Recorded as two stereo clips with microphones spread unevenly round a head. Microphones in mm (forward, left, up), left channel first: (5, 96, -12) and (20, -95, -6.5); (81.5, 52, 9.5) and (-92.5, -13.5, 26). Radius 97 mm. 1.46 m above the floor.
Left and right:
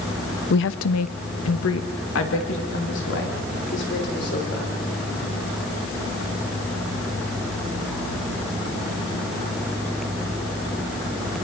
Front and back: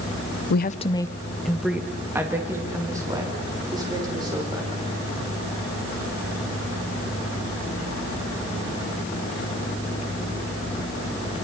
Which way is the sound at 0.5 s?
55° left.